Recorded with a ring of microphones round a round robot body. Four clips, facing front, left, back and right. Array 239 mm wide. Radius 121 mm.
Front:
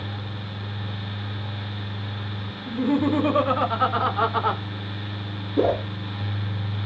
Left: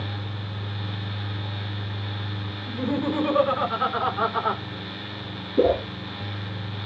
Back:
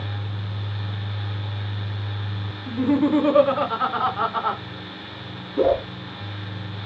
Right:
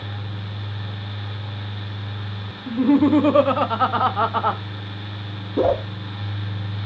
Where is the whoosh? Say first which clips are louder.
Right 1 dB, back 2 dB; 70° right, 1.9 m.